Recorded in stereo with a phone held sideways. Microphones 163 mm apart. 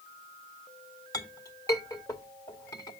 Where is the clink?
20° left (ahead or behind), 1.8 m.